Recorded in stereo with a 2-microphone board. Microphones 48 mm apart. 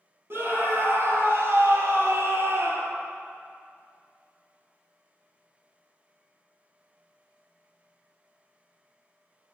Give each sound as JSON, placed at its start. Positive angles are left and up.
{"t": 0.3, "sound": "a scream", "side_deg": -45, "distance_m": 3.5}